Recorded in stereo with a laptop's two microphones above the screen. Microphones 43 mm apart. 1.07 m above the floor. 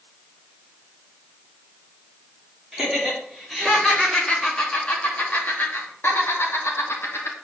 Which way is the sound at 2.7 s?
10° right (ahead or behind).